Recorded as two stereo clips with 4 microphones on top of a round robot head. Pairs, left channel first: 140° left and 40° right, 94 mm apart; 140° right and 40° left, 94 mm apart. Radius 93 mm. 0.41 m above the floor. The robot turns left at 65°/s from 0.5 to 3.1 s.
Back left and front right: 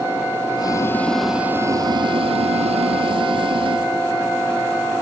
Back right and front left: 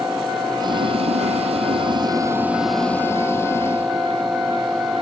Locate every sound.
0.6 s boiling: 90° left; by 3.9 s 75° right